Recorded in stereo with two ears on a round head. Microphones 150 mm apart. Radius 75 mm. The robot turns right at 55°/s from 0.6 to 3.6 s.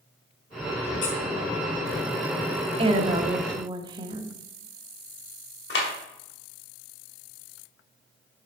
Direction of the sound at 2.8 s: 100° right.